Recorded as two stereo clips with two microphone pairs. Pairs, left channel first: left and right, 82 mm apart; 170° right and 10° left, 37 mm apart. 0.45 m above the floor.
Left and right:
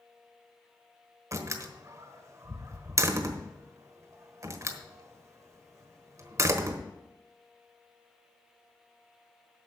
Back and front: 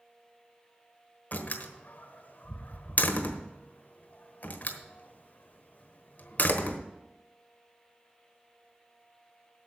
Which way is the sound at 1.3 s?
135° right.